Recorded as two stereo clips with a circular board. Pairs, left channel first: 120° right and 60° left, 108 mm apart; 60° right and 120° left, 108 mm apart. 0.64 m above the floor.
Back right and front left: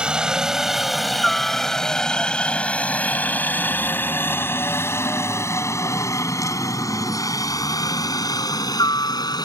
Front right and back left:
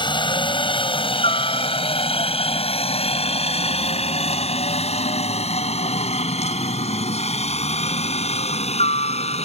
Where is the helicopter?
20° right; by 9.4 s 70° right.